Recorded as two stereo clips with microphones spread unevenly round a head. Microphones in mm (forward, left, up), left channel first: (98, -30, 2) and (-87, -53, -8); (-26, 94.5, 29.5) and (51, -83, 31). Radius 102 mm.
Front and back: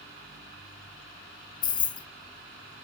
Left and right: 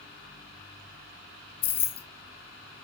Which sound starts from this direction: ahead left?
Keys jangling, at 1.6 s.